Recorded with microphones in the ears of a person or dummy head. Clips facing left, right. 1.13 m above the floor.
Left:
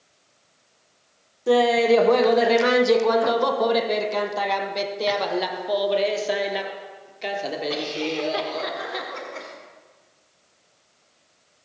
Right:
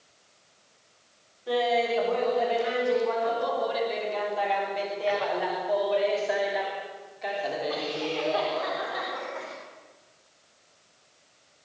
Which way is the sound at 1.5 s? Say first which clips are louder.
Left 8 dB; 60° left (ahead or behind).